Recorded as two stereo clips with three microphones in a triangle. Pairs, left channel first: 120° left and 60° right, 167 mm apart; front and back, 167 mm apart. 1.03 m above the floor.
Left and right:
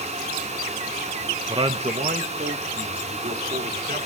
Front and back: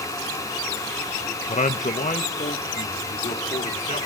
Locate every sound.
1.5 s a man speaking: 10° right, 0.9 m; by 4.1 s 35° right, 3.5 m